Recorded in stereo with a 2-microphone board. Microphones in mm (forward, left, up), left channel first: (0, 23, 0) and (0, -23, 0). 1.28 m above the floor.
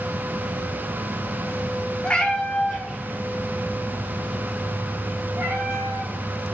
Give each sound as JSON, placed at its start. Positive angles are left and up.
{"t": 2.0, "sound": "a cat meowing", "side_deg": 25, "distance_m": 0.7}